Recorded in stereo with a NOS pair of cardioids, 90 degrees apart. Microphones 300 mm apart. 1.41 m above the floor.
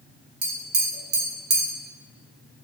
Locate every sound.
0.4 s tapping: 35° right, 0.8 m